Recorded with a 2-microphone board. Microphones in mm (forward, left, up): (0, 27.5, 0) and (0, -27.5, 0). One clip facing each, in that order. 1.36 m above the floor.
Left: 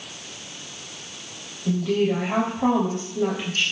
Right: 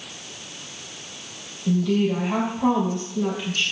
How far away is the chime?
No chime in this recording.